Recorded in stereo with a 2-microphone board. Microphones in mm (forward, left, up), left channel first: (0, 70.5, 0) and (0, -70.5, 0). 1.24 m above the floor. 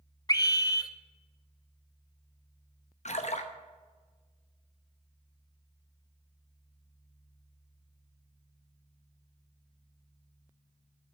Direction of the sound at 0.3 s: 30° left (ahead or behind).